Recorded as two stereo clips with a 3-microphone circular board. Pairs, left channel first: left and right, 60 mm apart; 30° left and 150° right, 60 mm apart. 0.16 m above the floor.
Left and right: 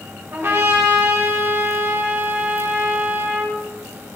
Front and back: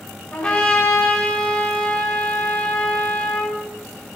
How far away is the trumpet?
About 5 m.